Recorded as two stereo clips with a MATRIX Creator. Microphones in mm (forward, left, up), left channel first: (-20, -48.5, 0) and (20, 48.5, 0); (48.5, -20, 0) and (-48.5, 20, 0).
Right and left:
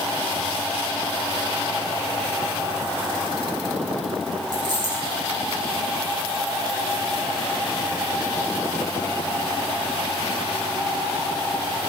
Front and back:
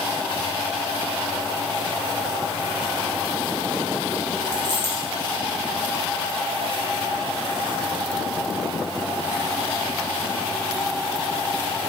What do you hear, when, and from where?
4.5 s a dropped coin: 115° left, 5.5 m